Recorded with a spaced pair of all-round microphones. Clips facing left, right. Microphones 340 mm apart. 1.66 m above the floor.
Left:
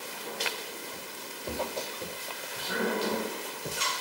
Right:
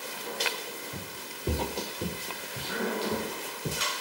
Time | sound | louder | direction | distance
0.9 | footsteps | right 1 dB | 50° right (ahead or behind) | ?